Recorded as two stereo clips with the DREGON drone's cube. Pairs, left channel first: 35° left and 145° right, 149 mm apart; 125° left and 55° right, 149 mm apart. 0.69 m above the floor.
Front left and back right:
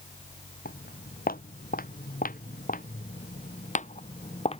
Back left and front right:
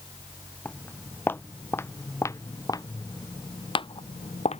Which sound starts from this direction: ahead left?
Footsteps, at 0.7 s.